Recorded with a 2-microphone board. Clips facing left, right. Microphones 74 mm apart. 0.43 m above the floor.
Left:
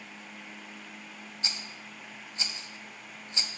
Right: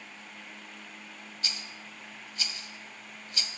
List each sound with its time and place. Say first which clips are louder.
1.4 s a rattle: even; 25° left (ahead or behind), 0.7 m